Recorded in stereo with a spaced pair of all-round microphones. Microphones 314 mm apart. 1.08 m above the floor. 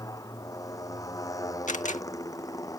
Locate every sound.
0.0 s a motorcycle: 10° left (ahead or behind)
1.7 s a camera shutter: 25° left (ahead or behind)